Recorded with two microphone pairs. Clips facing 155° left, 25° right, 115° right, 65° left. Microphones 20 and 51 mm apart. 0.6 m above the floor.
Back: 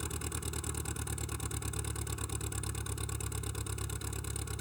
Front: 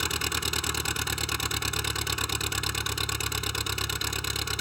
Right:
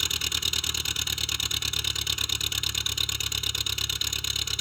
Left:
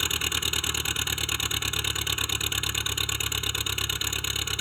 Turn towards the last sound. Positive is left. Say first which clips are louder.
# front 13 dB, left 2 dB
turn(degrees=-5)